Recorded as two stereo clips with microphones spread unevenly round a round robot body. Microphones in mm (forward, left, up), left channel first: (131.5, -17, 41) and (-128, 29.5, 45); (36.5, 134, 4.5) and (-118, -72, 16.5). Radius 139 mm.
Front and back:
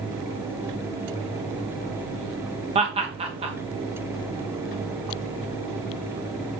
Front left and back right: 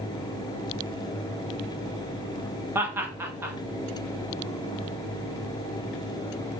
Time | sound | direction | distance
2.8 | laughter | 160° left | 0.6 m